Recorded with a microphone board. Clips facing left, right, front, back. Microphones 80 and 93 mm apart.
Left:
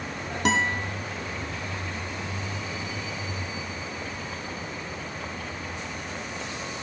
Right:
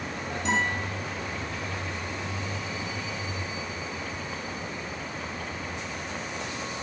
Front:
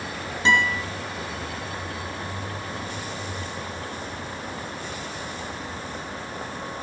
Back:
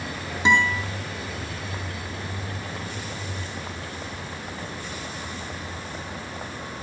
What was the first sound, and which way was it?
A guitar, 105° left.